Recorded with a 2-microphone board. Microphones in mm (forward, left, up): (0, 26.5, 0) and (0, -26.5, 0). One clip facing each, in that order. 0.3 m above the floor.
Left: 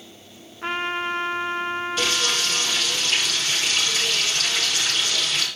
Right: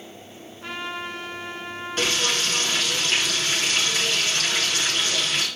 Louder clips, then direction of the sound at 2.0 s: Right 3 dB; 45° right (ahead or behind).